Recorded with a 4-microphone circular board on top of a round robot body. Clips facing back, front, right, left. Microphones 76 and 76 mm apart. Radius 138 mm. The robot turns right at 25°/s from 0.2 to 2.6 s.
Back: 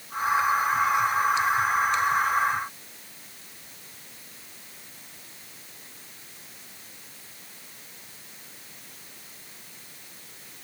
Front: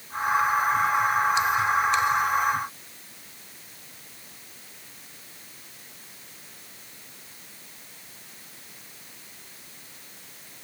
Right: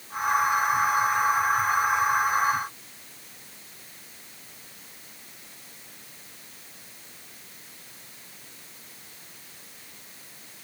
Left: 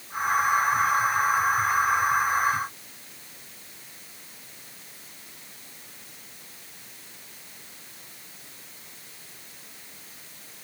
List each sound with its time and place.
Only background noise.